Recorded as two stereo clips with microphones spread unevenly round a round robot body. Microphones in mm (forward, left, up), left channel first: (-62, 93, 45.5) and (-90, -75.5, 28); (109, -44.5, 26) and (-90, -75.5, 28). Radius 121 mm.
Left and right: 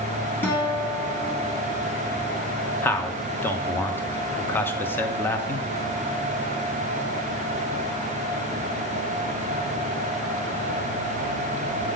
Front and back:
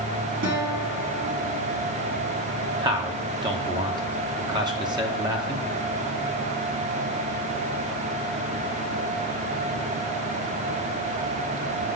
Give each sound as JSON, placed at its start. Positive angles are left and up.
{"t": 0.4, "sound": "a guitar", "azimuth_deg": 155, "distance_m": 2.0}
{"t": 2.8, "sound": "a man speaking", "azimuth_deg": 155, "distance_m": 0.9}